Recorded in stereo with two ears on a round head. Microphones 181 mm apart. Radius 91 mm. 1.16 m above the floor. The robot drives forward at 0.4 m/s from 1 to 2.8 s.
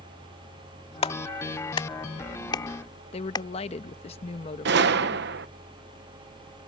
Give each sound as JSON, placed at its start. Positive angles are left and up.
{"t": 1.0, "sound": "a clap", "side_deg": 30}
{"t": 3.1, "sound": "a woman speaking", "side_deg": 30}
{"t": 4.7, "sound": "a gunshot", "side_deg": -60}